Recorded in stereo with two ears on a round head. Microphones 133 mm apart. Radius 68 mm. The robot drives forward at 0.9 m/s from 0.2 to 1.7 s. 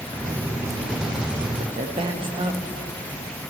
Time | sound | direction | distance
1.6 | a woman speaking | 40° right (ahead or behind) | 0.8 m